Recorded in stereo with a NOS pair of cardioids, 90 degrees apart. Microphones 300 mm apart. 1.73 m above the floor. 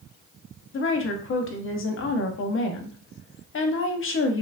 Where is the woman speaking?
45° left, 0.8 m.